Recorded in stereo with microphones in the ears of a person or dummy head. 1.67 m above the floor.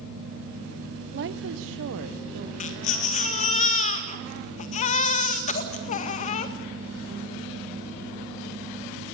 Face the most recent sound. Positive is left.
turn(degrees=40)  # may be behind; listen again after turning